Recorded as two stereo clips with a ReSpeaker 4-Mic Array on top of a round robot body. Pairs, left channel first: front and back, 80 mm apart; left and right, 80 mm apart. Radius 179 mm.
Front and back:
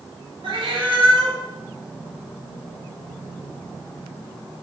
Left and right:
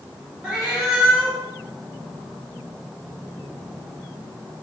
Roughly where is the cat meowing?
Behind.